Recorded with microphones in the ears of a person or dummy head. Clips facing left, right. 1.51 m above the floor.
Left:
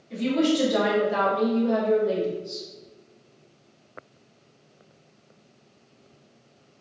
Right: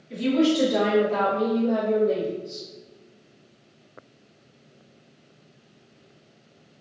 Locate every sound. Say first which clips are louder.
0.1 s a woman speaking: right 2 dB; 15° right (ahead or behind), 1.3 m; by 2.7 s 70° left (ahead or behind), 0.8 m